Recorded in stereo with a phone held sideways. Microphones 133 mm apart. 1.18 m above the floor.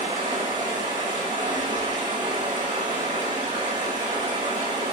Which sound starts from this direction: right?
Running water, at 0.0 s.